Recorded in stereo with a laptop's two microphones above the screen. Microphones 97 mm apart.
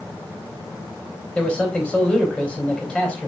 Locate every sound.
1.4 s a man speaking: 10° left (ahead or behind), 3.5 m